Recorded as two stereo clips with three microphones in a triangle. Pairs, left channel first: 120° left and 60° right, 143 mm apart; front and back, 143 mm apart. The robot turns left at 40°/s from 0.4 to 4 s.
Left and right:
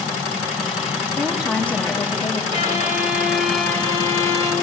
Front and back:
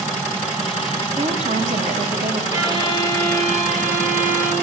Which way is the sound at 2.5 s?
115° right.